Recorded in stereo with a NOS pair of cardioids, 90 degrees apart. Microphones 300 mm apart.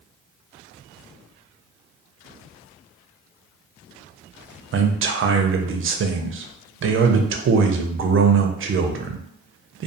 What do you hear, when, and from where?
4.7 s a man speaking: 45° right, 0.6 m